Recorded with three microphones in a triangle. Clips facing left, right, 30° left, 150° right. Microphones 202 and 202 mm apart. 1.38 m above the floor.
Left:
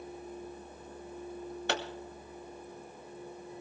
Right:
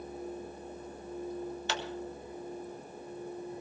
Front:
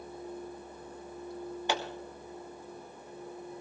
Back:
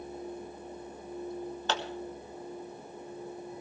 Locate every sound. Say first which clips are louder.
1.7 s a pop: left 6 dB, front 1 dB; 105° left, 1.9 m